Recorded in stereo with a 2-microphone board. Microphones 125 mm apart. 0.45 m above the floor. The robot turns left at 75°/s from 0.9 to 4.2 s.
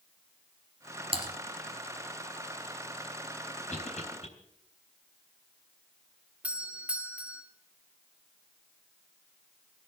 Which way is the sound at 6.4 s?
10° right (ahead or behind).